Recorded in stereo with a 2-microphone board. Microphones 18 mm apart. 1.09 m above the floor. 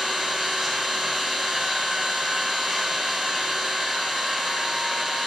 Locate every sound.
0.0 s an engine running: 25° right (ahead or behind), 1.5 m